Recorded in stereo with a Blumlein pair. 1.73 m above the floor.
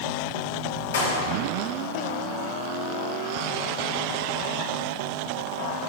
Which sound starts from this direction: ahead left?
A clap, at 0.9 s.